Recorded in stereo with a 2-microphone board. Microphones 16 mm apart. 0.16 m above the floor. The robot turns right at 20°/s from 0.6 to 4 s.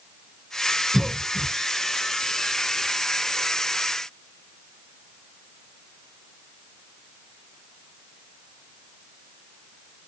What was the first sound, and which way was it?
A cough, 20° right (ahead or behind).